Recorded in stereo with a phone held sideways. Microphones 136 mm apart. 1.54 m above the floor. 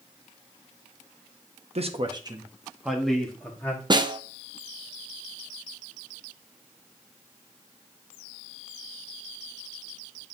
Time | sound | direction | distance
1.8 | a man speaking | 50° right (ahead or behind) | 0.9 m
3.9 | a snare drum | 35° right (ahead or behind) | 0.6 m